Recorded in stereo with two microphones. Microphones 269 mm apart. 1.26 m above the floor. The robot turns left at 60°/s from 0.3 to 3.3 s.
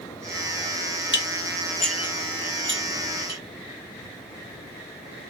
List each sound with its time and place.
1.1 s dishes clattering: 45° left (ahead or behind), 0.8 m; by 3.4 s 70° right (ahead or behind), 0.8 m